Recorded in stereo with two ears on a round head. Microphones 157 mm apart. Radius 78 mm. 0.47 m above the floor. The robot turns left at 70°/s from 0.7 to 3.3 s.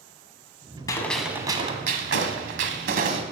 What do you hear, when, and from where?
0.9 s a gunshot: 20° left, 1.3 m; by 3.2 s 145° right, 1.3 m